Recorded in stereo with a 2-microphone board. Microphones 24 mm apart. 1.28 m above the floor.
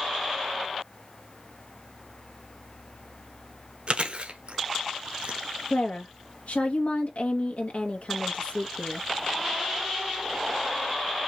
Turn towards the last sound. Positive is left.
turn(degrees=75)  # may be behind; listen again after turning